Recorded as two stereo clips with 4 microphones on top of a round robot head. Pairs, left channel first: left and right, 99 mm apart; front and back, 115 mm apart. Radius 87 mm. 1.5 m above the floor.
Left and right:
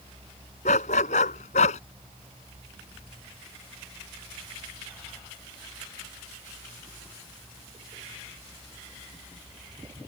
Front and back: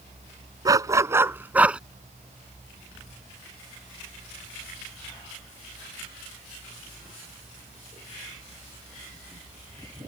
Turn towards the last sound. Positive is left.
turn(degrees=100)